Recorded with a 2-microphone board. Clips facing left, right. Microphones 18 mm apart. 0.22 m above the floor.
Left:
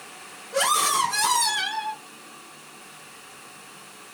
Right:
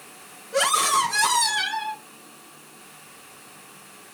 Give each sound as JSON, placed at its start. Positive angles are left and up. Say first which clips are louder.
{"t": 0.5, "sound": "a scream", "louder": "right 1 dB", "side_deg": -15, "distance_m": 4.5}